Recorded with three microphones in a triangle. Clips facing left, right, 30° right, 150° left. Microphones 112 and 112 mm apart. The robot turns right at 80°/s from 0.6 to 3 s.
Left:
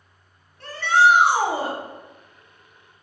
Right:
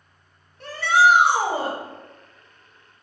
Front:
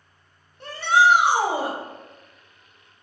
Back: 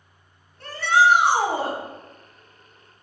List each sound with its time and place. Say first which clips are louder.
0.6 s a shout: even, even; 55° right, 0.9 m; by 1.8 s 40° left, 0.9 m